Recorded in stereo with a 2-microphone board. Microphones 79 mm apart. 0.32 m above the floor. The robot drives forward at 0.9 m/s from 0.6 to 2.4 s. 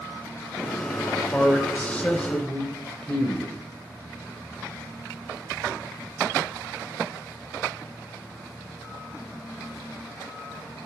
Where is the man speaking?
20° left (ahead or behind), 0.9 m; by 3.5 s 15° left (ahead or behind), 1.1 m.